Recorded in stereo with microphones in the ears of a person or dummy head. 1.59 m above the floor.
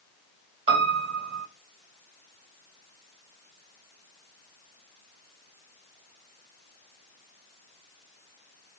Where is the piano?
35° right (ahead or behind), 1.1 m.